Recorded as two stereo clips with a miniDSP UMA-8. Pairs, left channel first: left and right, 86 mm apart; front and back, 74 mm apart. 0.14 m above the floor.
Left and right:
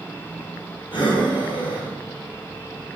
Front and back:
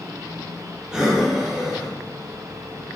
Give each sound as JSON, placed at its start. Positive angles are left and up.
{"t": 0.9, "sound": "breathing", "azimuth_deg": 100, "distance_m": 2.5}